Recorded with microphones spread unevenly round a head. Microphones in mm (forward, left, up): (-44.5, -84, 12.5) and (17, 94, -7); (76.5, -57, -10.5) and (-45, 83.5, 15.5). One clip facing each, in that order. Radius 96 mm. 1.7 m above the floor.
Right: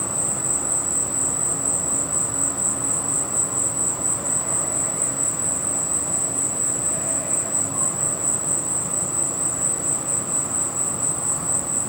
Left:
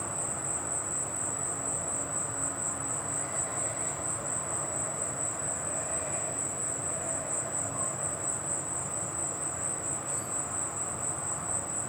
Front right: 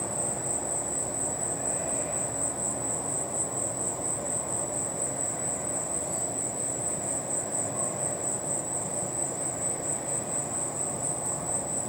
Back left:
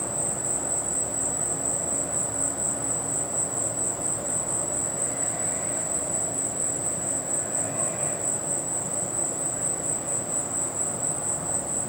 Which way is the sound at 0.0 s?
140° right.